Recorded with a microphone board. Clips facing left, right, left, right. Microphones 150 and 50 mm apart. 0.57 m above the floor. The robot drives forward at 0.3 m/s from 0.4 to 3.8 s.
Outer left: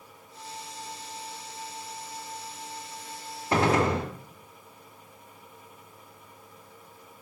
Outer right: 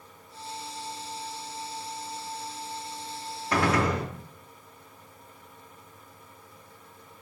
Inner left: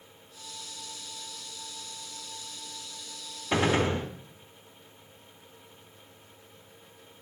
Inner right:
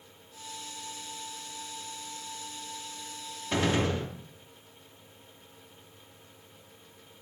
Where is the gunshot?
25° left (ahead or behind), 0.7 m.